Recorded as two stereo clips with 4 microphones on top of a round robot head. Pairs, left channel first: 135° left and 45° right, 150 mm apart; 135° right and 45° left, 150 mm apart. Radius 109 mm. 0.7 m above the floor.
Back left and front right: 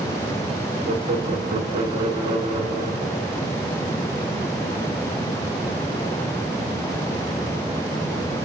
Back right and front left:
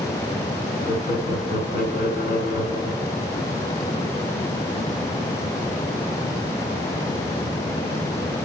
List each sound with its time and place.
0.9 s laughter: 105° right, 7 m